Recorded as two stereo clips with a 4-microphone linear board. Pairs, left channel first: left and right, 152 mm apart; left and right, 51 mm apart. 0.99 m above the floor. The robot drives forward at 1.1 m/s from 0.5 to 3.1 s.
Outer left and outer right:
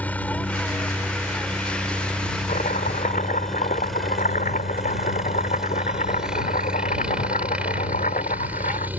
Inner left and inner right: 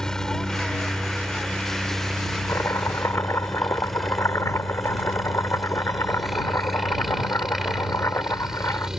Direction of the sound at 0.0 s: 10° left (ahead or behind).